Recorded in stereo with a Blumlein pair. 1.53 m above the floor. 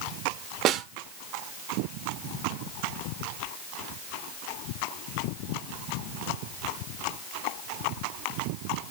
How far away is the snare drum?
About 0.7 m.